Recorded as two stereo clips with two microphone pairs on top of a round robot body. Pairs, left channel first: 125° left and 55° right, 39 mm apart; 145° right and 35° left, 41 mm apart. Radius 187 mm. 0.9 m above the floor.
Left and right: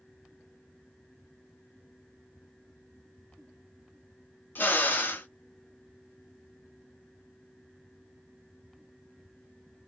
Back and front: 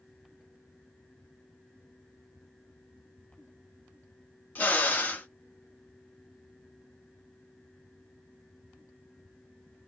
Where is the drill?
165° left, 0.7 m.